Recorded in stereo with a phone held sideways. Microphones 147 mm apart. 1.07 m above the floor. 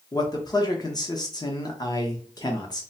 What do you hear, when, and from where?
0.1 s a man speaking: 30° left (ahead or behind), 0.9 m